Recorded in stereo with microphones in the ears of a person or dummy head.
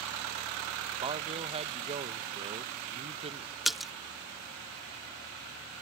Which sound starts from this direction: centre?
A splash, at 3.6 s.